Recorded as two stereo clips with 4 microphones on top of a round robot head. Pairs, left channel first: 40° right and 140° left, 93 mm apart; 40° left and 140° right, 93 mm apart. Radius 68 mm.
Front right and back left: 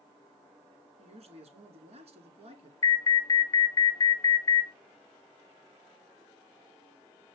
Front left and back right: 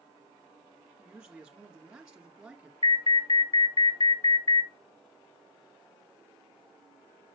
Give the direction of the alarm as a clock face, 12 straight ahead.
12 o'clock.